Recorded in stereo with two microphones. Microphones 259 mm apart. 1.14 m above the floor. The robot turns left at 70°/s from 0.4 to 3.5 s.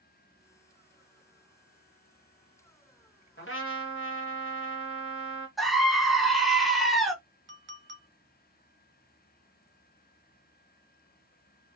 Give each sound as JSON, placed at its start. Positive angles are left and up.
{"t": 3.4, "sound": "a trumpet", "side_deg": 40, "distance_m": 1.5}
{"t": 5.6, "sound": "a scream", "side_deg": 0, "distance_m": 0.6}
{"t": 7.5, "sound": "a clink", "side_deg": -45, "distance_m": 0.6}